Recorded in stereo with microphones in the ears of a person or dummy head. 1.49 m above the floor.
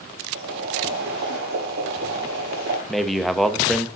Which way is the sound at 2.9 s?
5° right (ahead or behind).